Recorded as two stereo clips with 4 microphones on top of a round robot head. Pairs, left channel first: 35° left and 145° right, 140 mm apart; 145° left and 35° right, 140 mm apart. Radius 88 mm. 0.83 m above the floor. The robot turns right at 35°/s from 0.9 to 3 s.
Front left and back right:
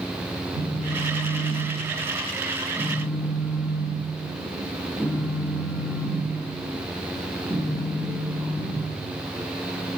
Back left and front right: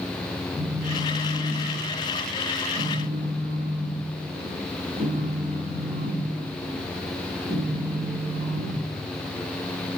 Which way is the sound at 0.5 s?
140° right.